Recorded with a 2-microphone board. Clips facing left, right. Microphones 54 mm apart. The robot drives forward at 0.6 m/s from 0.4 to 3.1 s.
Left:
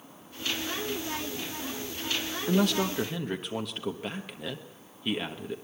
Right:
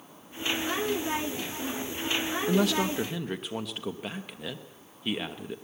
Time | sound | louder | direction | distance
2.5 | a man speaking | even | centre (ahead or behind) | 0.8 m